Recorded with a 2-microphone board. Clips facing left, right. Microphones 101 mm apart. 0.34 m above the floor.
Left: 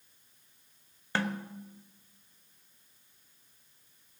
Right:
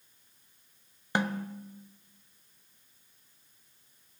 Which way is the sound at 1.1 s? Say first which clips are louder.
Right 2 dB; 15° right (ahead or behind).